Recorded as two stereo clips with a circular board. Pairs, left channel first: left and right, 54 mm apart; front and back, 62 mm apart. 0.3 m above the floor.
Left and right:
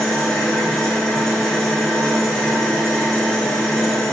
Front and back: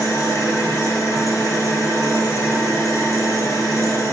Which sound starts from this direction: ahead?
An engine running, at 0.0 s.